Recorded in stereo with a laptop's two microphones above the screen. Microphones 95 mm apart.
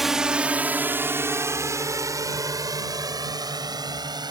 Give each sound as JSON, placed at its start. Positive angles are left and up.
{"t": 0.0, "sound": "a drone", "side_deg": -5}